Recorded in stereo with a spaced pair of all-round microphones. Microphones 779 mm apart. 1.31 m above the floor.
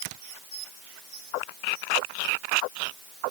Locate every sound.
Only background noise.